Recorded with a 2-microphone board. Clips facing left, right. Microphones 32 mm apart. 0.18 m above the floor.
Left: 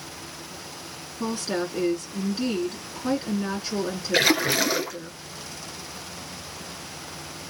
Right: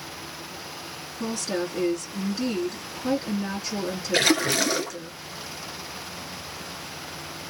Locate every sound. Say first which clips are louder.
1.2 s a woman speaking: left 1 dB; 30° left (ahead or behind), 2 m
4.1 s a splash: left 1 dB; 5° left (ahead or behind), 1.0 m